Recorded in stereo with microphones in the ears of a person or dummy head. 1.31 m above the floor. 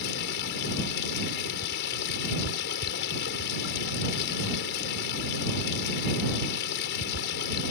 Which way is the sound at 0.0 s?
70° left (ahead or behind).